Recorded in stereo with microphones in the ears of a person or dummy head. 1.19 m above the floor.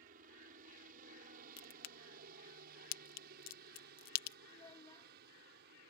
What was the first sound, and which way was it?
A helicopter, 45° right (ahead or behind).